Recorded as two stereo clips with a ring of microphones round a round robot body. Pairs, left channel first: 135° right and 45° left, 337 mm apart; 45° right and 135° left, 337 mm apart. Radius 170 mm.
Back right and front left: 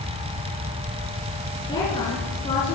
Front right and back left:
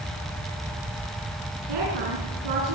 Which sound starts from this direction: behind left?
A woman speaking, at 1.7 s.